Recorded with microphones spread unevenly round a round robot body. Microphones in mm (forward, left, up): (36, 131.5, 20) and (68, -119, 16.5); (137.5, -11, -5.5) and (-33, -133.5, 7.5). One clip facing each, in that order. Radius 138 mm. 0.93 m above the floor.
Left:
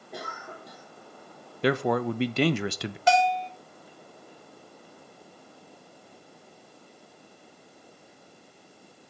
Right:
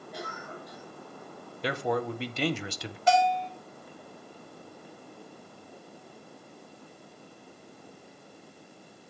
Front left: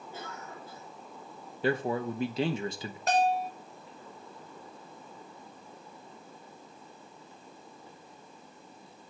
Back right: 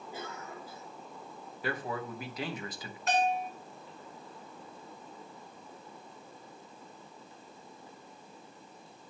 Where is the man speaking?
95° left, 0.6 m.